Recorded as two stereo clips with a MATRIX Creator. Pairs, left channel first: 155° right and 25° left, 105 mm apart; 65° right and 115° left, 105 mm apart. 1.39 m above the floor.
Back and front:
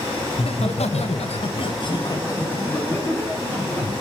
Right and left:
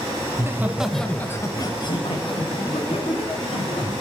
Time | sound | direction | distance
0.3 | laughter | 175° left | 1.8 m